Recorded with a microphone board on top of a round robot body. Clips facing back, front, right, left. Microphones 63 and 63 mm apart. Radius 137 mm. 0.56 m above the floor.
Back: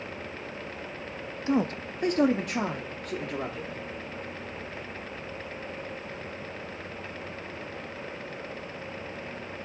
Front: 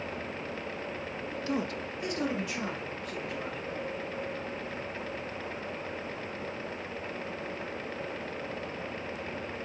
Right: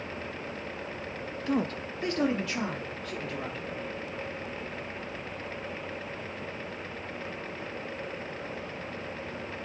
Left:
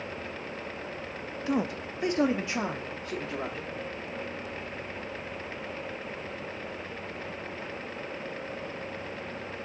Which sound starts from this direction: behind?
A man speaking, at 1.5 s.